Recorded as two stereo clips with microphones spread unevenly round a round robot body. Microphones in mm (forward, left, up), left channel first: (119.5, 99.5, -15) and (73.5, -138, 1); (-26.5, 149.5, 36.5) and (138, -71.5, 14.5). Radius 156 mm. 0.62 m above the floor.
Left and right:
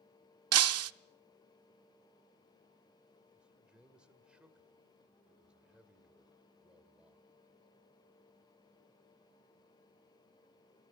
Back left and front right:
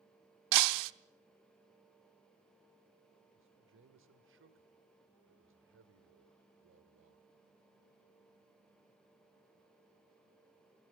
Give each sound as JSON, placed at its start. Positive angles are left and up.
{"t": 0.5, "sound": "breaking glass", "azimuth_deg": -75, "distance_m": 0.7}
{"t": 3.3, "sound": "a man speaking", "azimuth_deg": -15, "distance_m": 2.0}